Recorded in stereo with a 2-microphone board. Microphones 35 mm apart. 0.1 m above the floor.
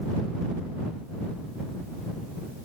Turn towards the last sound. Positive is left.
No sound to turn to.